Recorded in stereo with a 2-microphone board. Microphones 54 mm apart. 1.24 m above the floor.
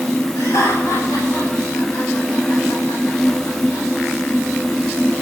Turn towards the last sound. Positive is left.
turn(degrees=80)